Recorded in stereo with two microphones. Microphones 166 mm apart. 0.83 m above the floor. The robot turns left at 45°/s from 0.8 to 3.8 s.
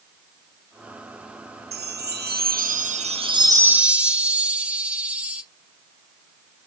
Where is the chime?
80° right, 0.6 m; by 5.4 s 170° right, 0.6 m.